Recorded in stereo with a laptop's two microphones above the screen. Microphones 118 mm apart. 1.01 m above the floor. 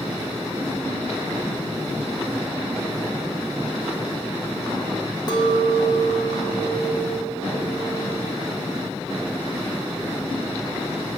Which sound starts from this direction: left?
A clink, at 5.3 s.